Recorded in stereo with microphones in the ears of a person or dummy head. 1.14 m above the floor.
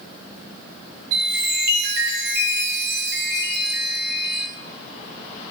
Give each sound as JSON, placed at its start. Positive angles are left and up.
{"t": 1.1, "sound": "a chime", "side_deg": -70, "distance_m": 5.5}